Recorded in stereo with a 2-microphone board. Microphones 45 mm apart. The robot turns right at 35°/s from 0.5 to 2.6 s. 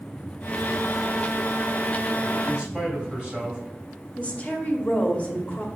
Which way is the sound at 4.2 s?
30° left (ahead or behind).